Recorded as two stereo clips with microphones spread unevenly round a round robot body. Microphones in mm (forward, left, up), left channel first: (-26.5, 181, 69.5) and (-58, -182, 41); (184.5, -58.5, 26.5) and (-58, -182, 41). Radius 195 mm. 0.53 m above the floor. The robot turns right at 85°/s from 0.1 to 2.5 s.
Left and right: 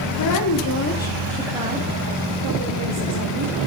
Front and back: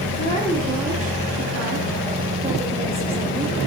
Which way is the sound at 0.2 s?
75° left.